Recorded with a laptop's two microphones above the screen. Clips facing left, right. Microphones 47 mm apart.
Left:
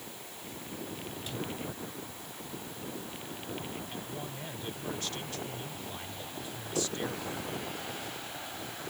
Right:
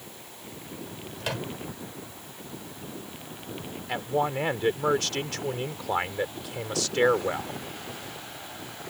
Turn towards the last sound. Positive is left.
turn(degrees=-80)